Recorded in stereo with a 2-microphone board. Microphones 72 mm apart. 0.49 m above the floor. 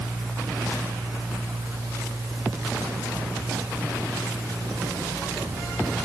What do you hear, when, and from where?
Only background noise.